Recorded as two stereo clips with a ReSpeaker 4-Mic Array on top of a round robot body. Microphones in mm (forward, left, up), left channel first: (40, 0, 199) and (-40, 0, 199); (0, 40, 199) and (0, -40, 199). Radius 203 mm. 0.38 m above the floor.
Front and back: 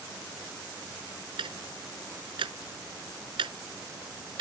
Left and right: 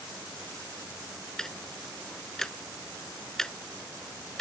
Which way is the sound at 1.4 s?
175° left.